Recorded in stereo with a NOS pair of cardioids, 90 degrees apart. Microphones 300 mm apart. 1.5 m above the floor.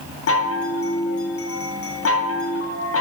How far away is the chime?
About 1.2 m.